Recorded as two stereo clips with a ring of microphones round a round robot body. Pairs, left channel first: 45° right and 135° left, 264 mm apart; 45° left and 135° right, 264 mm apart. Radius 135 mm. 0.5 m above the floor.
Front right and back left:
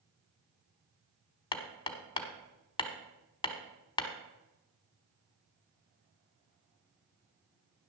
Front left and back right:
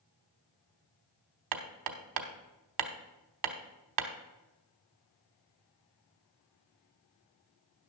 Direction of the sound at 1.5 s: 120° right.